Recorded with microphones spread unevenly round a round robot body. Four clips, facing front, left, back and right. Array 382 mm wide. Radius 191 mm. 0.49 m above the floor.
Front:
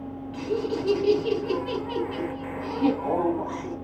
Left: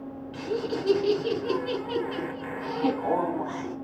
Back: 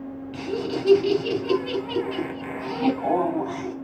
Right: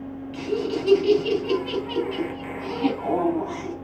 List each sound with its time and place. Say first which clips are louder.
0.3 s laughter: right 4 dB, front 1 dB; 175° left, 5.5 m